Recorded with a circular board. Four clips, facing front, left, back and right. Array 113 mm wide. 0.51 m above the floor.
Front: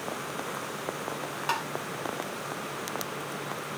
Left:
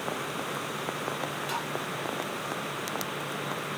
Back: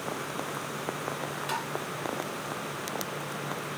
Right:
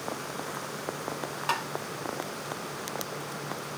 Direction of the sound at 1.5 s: 55° right.